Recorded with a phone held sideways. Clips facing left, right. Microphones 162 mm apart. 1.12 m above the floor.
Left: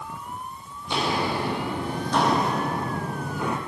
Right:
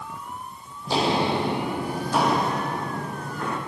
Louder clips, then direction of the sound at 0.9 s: Right 3 dB; 35° right (ahead or behind).